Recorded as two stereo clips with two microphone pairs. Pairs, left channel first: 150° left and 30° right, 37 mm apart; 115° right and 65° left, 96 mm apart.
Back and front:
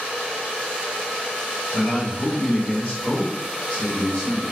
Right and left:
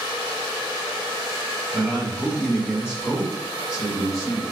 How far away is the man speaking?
About 1.5 m.